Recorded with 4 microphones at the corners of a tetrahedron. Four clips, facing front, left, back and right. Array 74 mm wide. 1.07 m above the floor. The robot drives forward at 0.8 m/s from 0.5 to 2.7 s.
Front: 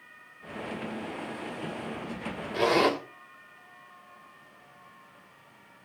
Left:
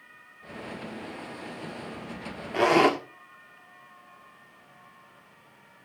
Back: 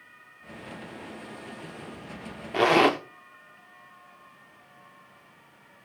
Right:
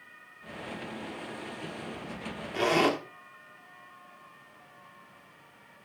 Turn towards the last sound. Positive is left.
turn(degrees=150)